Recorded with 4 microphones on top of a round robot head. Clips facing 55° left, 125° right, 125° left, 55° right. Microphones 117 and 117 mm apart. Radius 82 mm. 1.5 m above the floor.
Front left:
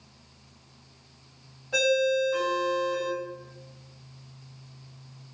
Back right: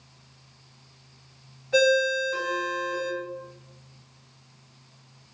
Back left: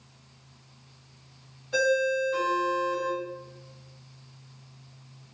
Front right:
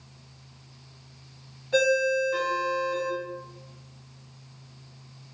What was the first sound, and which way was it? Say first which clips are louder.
A ringtone: back right 2 dB, front right 2 dB; 20° right.